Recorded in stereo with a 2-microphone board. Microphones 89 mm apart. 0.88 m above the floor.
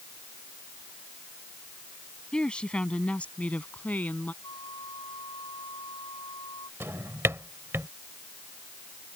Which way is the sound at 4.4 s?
55° left (ahead or behind).